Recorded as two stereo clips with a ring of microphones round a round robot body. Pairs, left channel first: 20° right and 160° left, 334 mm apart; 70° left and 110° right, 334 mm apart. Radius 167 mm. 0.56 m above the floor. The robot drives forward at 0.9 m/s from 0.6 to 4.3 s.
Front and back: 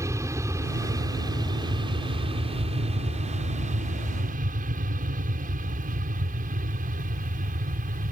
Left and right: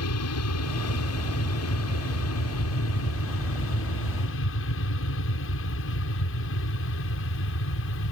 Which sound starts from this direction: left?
An aircraft, at 0.0 s.